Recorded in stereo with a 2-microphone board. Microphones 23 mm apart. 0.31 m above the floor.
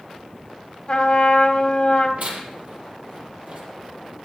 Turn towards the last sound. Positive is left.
turn(degrees=-75)  # may be behind; listen again after turning